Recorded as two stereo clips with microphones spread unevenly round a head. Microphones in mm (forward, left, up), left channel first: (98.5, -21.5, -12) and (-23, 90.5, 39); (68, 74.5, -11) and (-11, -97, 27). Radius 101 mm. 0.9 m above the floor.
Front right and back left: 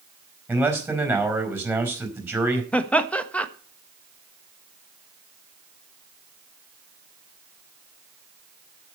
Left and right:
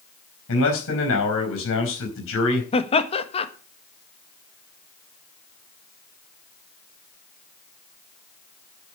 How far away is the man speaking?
About 4.5 m.